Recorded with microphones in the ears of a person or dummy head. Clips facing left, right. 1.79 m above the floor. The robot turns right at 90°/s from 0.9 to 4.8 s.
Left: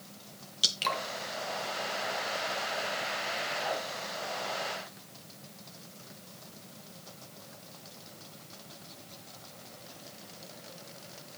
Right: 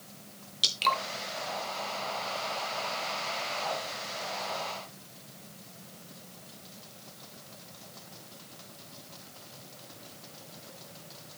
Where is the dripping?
5° left (ahead or behind), 0.7 m; by 1.0 s centre (ahead or behind), 0.7 m.